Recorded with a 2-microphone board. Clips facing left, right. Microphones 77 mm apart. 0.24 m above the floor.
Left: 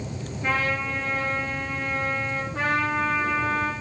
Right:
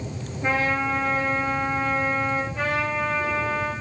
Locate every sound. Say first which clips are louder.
0.4 s a trumpet: right 3 dB; 10° right (ahead or behind), 5 m
2.5 s a trumpet: left 1 dB; 75° left (ahead or behind), 7 m